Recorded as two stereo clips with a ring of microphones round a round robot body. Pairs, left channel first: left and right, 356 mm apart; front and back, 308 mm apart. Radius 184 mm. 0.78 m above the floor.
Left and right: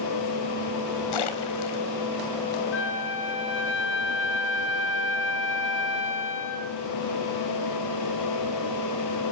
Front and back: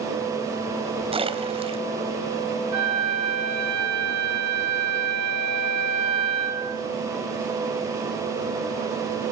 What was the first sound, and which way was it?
A splash, 105° left.